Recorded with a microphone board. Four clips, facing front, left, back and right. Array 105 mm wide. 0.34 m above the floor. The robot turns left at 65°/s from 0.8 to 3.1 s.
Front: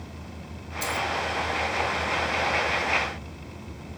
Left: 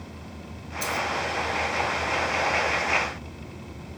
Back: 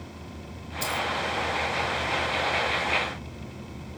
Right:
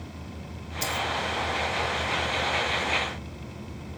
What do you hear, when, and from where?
0.8 s a dropped coin: 115° right, 1.7 m; by 1.1 s 130° right, 1.7 m